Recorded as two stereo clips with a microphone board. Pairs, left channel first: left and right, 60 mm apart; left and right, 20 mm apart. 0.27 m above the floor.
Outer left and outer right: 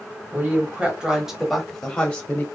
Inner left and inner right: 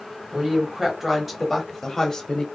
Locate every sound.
0.3 s a woman speaking: 30° right (ahead or behind), 1.3 m; by 2.5 s 25° left (ahead or behind), 1.3 m